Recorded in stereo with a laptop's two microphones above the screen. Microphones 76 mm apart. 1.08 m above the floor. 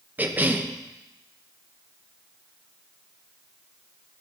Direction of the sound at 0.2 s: 25° right (ahead or behind).